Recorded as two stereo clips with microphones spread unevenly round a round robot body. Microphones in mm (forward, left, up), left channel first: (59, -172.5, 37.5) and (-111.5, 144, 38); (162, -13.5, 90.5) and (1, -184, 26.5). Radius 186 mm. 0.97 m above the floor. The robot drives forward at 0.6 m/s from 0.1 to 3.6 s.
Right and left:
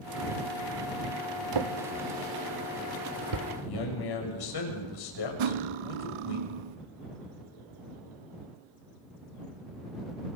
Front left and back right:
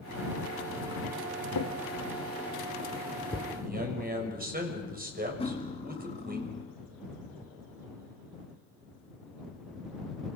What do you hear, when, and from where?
1.5 s a drawer: 85° left, 1.6 m; by 3.5 s 125° left, 1.9 m
3.6 s a man speaking: 85° right, 6.5 m
5.4 s cutlery clinking: 120° left, 0.8 m